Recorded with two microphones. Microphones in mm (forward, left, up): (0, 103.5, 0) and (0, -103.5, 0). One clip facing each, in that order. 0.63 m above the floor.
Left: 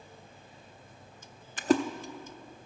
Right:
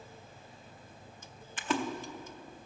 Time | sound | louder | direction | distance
1.6 | a splash | left 8 dB | 45° left (ahead or behind) | 0.6 m